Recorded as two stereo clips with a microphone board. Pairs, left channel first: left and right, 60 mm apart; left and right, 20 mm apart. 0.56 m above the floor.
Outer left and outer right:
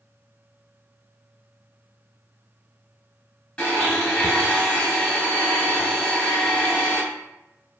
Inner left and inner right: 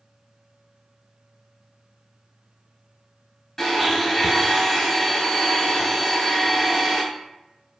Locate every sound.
3.6 s a blender: 15° left (ahead or behind), 1.3 m